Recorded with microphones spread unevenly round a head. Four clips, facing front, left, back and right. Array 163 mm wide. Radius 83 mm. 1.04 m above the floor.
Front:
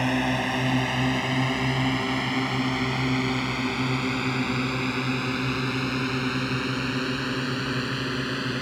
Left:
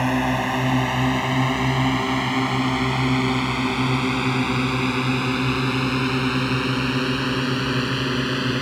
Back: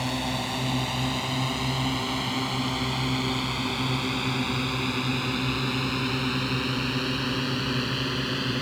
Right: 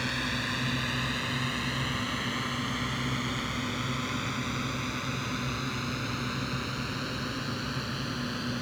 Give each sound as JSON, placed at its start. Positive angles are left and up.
{"t": 0.0, "sound": "a drone", "azimuth_deg": 70}